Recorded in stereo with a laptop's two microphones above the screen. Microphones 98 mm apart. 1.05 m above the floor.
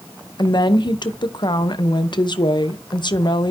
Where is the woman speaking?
50° left (ahead or behind), 0.6 m.